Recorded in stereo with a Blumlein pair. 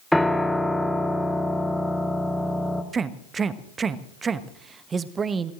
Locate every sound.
0.1 s a piano: straight ahead, 1.5 m
2.9 s a man speaking: 20° right, 1.0 m